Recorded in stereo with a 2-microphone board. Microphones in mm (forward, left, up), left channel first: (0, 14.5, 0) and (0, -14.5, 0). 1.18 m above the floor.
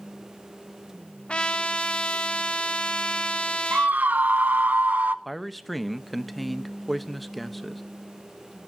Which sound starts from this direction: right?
A scream, at 3.7 s.